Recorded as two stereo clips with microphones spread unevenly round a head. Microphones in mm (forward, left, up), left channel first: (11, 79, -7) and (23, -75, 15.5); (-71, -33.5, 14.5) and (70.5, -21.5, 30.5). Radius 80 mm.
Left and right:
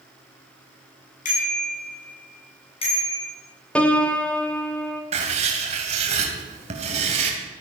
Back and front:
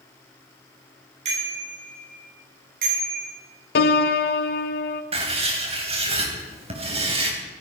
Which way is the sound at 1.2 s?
55° left.